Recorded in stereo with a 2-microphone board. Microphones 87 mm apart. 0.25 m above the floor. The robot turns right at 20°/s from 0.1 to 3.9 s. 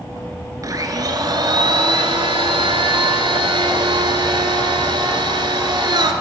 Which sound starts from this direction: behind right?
A blender, at 0.6 s.